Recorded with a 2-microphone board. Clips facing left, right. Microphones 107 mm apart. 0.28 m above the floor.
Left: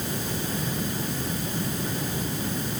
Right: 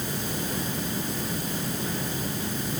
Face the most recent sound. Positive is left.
No sound to turn to.